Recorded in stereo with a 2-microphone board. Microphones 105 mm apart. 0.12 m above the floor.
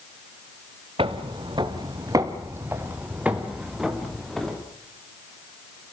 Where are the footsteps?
60° right (ahead or behind), 2.5 m; by 4.6 s 5° left (ahead or behind), 4 m.